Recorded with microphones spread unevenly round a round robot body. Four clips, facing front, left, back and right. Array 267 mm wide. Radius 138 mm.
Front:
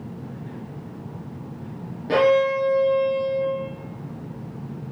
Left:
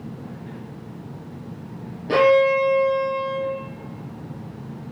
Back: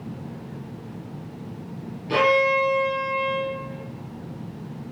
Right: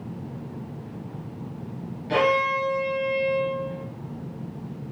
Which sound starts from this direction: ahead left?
A violin, at 2.1 s.